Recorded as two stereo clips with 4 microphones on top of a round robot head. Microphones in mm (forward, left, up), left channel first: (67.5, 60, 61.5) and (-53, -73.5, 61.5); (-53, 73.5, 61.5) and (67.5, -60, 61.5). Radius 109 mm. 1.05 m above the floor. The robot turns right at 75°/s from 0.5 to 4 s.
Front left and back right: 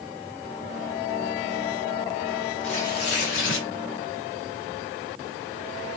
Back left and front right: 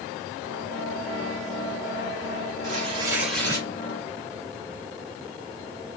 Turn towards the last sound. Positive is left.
turn(degrees=95)